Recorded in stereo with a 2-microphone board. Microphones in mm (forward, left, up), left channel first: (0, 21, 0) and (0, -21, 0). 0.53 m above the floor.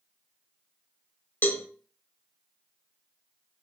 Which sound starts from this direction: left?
A cowbell, at 1.4 s.